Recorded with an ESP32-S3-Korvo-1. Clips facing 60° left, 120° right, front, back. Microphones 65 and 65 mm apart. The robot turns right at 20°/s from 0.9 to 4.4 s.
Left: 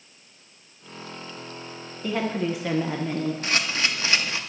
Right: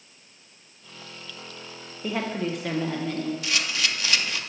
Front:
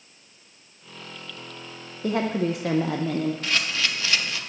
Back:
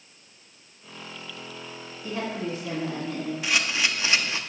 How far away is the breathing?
No breathing in this recording.